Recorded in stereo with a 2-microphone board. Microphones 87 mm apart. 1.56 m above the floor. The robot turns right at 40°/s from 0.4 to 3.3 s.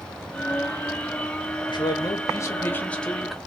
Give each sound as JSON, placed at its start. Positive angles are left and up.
{"t": 1.7, "sound": "a man speaking", "azimuth_deg": 115, "distance_m": 0.9}